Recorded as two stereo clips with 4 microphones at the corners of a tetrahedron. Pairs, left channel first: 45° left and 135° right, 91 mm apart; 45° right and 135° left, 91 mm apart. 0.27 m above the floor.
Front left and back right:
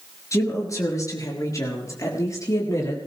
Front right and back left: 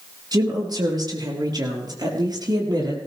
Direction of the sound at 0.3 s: 95° left.